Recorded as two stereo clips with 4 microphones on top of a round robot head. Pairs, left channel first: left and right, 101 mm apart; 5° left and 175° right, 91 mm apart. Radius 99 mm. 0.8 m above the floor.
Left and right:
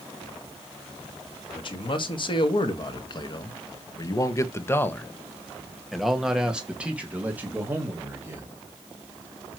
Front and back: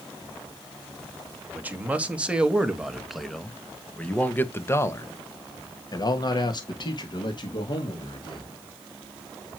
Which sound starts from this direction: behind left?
A man speaking, at 1.5 s.